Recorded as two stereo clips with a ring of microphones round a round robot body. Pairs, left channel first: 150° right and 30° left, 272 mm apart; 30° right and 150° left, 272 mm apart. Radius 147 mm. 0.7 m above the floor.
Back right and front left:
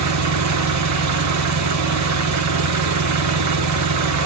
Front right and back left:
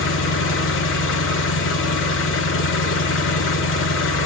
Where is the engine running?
10° left, 1.1 m.